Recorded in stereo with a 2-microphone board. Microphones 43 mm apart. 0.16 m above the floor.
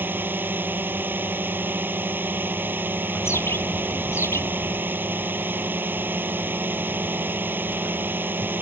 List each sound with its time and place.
0.0 s a drone: 45° right (ahead or behind)
3.1 s a bird: 75° left (ahead or behind)